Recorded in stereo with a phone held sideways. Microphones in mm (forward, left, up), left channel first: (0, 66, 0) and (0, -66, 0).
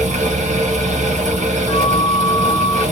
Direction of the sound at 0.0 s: 65° right (ahead or behind).